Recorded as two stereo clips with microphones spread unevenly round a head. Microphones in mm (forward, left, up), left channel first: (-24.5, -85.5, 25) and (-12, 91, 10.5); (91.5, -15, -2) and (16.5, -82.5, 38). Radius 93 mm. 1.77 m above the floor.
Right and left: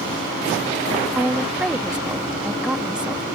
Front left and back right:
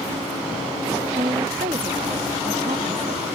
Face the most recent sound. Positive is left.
turn(degrees=170)